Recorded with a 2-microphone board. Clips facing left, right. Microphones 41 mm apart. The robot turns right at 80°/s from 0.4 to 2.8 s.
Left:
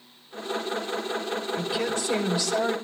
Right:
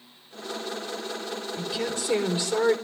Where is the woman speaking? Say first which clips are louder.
Left 1 dB; 160° left, 4.5 m; by 2.7 s 105° right, 4.5 m.